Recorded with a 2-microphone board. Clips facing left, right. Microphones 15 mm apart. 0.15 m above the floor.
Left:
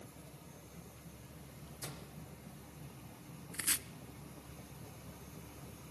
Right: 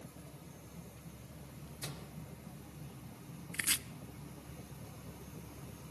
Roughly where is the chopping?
Right.